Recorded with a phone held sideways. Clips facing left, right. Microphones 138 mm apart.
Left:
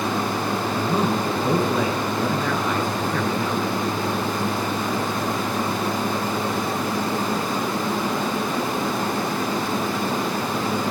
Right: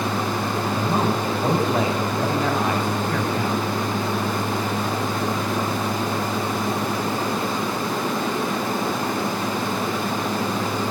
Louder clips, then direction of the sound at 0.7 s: Even; 70° right (ahead or behind).